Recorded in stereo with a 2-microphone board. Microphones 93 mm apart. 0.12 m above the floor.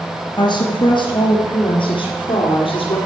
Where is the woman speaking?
50° left (ahead or behind), 2 m; by 3.0 s 65° left (ahead or behind), 3 m.